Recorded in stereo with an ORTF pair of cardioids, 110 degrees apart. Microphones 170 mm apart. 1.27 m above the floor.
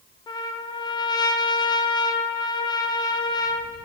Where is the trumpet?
25° left, 0.5 m.